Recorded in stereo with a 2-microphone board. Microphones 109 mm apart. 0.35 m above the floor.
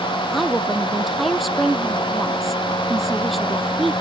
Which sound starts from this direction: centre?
A woman speaking, at 0.3 s.